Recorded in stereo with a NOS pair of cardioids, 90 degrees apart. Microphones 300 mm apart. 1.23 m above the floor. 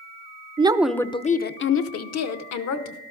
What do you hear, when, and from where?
0.6 s a woman speaking: 20° right, 0.5 m; by 3.0 s 65° left, 1.2 m